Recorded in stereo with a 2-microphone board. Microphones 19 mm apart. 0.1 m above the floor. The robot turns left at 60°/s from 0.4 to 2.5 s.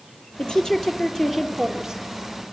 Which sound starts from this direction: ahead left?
A woman speaking, at 0.4 s.